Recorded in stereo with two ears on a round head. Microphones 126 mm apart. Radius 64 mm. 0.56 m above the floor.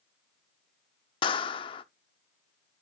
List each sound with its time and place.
1.2 s a clap: 35° left (ahead or behind), 0.7 m